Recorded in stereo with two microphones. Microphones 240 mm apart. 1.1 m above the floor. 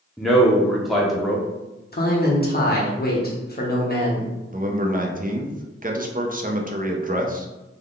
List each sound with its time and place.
0.2 s a man speaking: centre (ahead or behind), 0.5 m
1.9 s a man speaking: 40° left (ahead or behind), 0.9 m
4.5 s a man speaking: 35° right (ahead or behind), 0.5 m